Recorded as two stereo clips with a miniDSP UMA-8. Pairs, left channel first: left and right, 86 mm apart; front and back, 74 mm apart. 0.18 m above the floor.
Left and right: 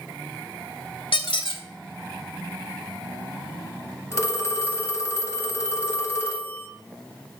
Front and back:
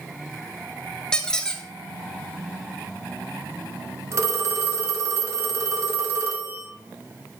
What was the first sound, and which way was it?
A squeak, 80° left.